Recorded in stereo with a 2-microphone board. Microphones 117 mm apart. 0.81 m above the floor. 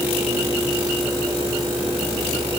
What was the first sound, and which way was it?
Only background noise.